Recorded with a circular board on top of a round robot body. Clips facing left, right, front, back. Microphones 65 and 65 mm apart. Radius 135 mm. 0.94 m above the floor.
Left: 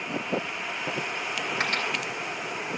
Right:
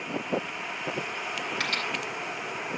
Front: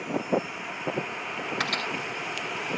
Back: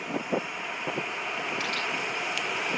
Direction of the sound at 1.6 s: 25° left.